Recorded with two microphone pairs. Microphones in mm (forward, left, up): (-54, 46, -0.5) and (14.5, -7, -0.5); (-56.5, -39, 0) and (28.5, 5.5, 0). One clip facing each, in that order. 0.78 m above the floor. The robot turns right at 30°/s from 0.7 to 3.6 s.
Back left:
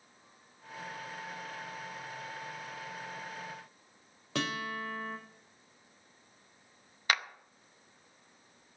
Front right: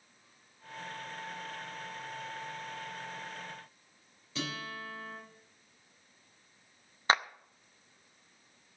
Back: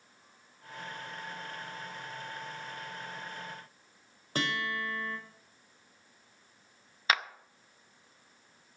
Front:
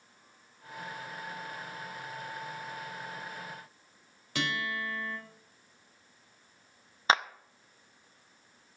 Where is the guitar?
160° left, 4 m.